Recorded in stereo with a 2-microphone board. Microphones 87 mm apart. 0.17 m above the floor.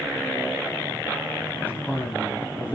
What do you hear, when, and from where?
1.6 s a man speaking: 20° left (ahead or behind), 1.5 m